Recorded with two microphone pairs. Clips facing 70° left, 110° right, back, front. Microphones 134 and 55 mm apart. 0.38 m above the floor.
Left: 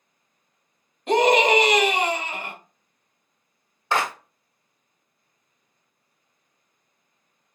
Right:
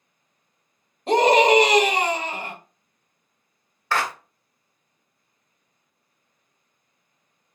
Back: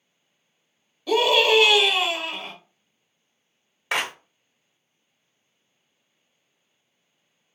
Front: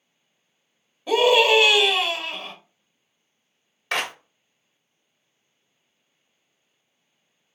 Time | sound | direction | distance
1.1 | a scream | 65° right | 1.2 m
3.9 | a clap | 115° left | 0.6 m